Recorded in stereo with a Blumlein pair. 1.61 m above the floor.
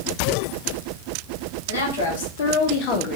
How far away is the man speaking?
About 1.2 m.